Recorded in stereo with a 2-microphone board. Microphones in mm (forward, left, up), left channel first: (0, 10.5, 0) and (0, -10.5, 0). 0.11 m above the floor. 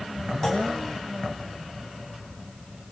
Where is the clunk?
20° left (ahead or behind), 4 m.